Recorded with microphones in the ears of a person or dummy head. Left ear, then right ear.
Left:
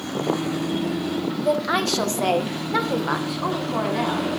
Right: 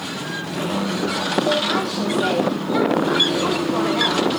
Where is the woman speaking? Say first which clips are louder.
Even; 75° left (ahead or behind), 1.2 m; by 4.3 s 10° right (ahead or behind), 1.2 m.